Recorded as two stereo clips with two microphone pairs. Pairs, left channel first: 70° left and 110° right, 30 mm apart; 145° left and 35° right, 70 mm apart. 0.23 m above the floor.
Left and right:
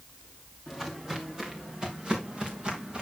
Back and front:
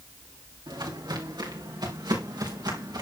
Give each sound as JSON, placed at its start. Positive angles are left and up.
{"t": 0.7, "sound": "footsteps", "azimuth_deg": -35, "distance_m": 4.0}